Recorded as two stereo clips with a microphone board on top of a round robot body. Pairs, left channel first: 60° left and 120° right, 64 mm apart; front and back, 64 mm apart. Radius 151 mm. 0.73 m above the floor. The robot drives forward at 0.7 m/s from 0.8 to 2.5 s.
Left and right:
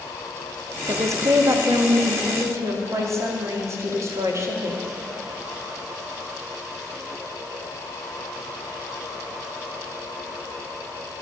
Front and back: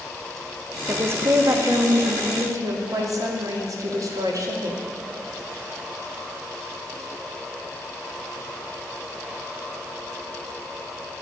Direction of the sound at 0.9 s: 135° right.